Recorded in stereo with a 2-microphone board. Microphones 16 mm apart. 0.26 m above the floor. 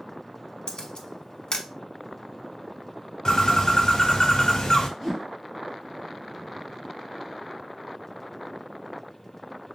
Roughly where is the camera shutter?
Left.